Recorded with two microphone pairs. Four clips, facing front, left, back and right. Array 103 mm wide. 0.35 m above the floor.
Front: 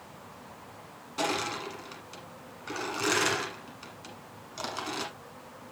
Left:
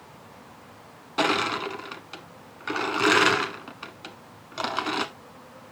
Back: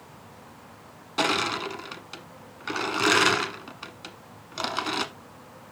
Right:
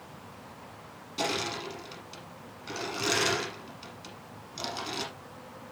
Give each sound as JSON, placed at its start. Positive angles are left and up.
{"t": 1.2, "sound": "crushing", "azimuth_deg": 120, "distance_m": 1.1}